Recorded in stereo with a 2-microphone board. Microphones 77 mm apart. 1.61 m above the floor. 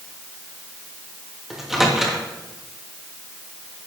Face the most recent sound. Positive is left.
turn(degrees=-5)  # may be behind; listen again after turning